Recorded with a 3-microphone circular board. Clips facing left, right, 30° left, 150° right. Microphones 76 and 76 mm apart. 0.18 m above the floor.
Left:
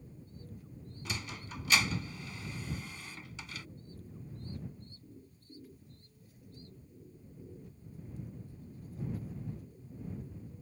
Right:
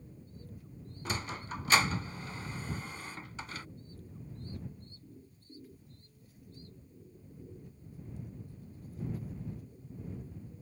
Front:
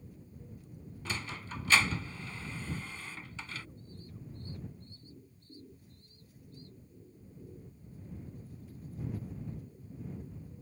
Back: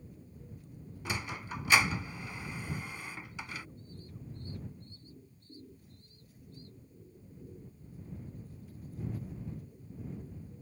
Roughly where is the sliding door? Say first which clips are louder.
Right 5 dB, back 2 dB; right.